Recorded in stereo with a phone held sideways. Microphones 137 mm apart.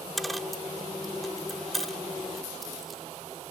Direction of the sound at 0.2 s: Centre (ahead or behind).